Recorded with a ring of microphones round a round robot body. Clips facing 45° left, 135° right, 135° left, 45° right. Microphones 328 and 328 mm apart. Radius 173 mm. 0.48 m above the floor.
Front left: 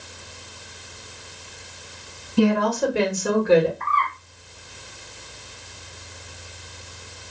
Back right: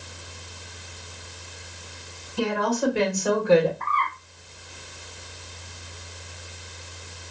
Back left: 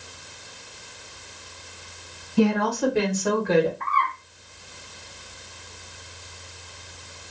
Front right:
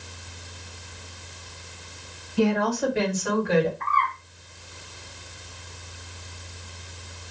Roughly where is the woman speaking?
Left.